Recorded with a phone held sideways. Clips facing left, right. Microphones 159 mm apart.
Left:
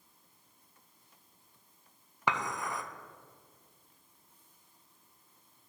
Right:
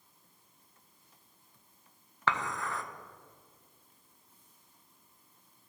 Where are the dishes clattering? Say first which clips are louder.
Even; 15° left (ahead or behind), 0.5 m.